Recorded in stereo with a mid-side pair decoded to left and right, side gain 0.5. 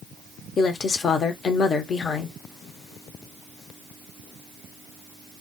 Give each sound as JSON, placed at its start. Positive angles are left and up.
{"t": 0.6, "sound": "a woman speaking", "azimuth_deg": 45, "distance_m": 0.8}